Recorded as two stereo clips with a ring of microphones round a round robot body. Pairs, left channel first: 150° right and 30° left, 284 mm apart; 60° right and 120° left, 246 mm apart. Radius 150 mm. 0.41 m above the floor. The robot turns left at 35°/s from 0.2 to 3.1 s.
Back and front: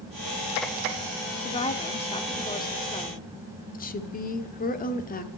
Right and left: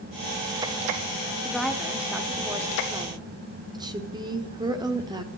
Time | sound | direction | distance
1.4 | a woman speaking | 145° right | 0.9 m
3.7 | a woman speaking | straight behind | 1.3 m